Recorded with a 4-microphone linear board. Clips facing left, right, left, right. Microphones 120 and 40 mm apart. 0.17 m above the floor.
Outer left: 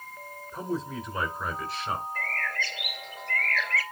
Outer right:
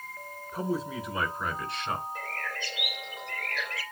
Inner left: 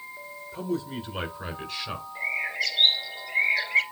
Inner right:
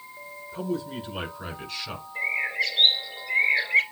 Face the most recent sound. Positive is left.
turn(degrees=-15)  # may be behind; listen again after turning